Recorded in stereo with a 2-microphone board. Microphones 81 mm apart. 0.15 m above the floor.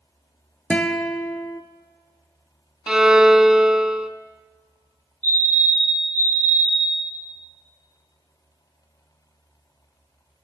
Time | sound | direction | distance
0.7 | a guitar | 15° left (ahead or behind) | 0.9 m
2.9 | a violin | 5° right (ahead or behind) | 0.5 m
5.2 | a fire alarm | 25° left (ahead or behind) | 3 m